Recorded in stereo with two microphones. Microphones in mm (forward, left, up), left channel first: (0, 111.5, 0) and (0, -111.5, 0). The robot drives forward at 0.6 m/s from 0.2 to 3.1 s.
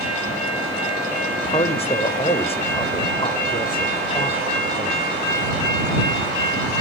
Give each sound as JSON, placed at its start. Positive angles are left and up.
{"t": 1.3, "sound": "a man speaking", "side_deg": 25, "distance_m": 1.4}